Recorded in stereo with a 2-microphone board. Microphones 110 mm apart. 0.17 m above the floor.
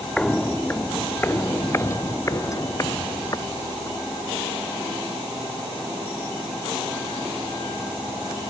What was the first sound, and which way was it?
Footsteps, 10° left (ahead or behind).